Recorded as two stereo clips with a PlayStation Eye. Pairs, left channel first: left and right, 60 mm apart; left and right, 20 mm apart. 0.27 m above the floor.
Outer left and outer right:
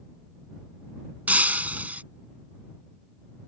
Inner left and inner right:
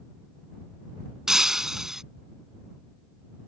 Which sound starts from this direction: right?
Breaking glass, at 1.3 s.